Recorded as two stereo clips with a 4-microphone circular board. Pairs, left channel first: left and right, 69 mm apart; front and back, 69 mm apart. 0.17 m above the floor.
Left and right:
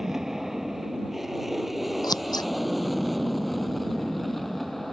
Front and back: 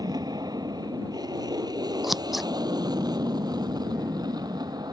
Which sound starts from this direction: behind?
An aircraft, at 0.0 s.